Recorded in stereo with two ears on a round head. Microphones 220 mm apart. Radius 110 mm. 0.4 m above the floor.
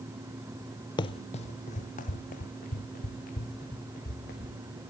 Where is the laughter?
I don't hear laughter.